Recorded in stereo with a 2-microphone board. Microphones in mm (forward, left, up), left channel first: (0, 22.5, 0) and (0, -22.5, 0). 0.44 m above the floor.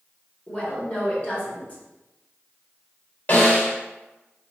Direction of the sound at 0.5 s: 35° left (ahead or behind).